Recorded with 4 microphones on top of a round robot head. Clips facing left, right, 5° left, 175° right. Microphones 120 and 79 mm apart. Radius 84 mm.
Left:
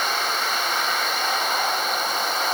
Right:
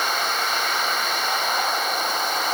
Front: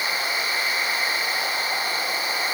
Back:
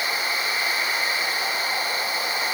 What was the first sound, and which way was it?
Only background noise.